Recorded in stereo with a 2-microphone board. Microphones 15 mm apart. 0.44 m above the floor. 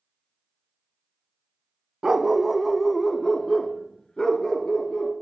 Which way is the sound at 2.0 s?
35° right (ahead or behind).